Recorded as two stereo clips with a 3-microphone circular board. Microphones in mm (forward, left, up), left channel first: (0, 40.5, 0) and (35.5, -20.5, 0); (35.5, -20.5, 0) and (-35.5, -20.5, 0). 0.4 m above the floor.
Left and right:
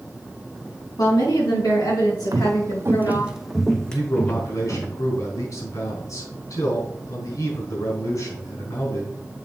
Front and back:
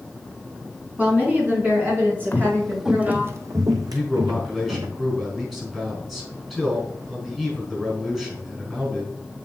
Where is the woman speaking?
115° left, 3.5 m; by 3.3 s 125° left, 5.5 m.